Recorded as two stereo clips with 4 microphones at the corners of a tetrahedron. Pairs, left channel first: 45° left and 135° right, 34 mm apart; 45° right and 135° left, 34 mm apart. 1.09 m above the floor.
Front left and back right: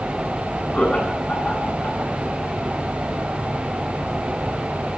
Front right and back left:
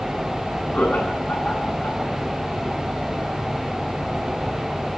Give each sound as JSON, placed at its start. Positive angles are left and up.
{"t": 0.7, "sound": "laughter", "azimuth_deg": -10, "distance_m": 9.5}